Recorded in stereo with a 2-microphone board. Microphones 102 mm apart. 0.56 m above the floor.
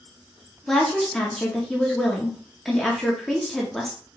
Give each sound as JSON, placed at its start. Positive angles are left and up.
{"t": 0.7, "sound": "a woman speaking", "side_deg": 5, "distance_m": 0.8}